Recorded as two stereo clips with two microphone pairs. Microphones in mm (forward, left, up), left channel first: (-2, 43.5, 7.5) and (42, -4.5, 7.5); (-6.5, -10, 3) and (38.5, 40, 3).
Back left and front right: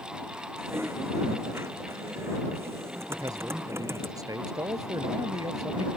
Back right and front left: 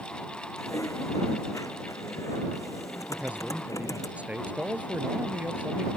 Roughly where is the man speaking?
Ahead.